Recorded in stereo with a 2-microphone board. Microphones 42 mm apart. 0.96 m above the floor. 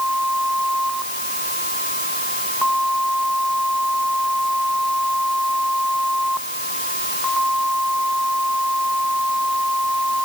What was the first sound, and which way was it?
Only background noise.